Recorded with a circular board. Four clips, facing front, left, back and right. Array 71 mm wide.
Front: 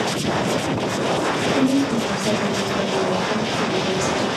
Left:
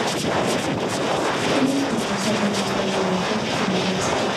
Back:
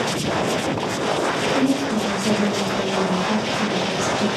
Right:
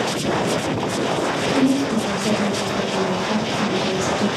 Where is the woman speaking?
110° right, 2.5 m; by 4.3 s 170° right, 2 m.